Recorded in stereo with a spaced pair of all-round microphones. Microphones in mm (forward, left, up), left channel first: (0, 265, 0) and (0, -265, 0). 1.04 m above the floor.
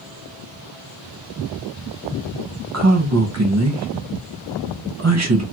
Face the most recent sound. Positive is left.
turn(degrees=-30)  # may be behind; listen again after turning